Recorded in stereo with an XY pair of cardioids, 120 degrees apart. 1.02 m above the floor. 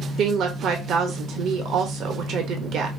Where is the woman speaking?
65° right, 1.0 m.